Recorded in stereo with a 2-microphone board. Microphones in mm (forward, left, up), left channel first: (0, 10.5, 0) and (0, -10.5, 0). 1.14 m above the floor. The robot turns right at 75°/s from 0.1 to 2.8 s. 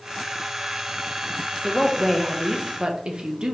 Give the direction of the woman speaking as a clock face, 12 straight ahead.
7 o'clock.